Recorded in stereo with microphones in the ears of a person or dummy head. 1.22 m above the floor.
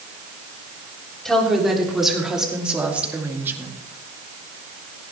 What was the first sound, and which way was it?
A woman speaking, centre (ahead or behind).